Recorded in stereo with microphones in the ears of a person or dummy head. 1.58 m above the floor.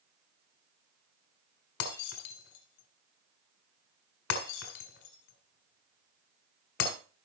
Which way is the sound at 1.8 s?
65° left (ahead or behind).